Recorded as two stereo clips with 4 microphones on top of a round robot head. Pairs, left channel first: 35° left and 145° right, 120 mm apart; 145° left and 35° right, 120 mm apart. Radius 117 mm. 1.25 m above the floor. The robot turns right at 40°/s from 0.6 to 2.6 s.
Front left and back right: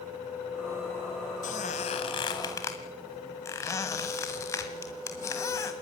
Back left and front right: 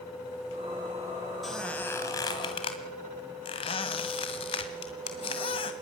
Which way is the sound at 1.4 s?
55° left.